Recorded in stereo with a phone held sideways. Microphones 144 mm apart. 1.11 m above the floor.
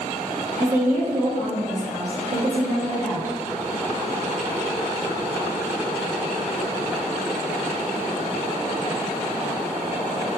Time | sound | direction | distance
0.6 | a woman speaking | 65° right (ahead or behind) | 1.1 m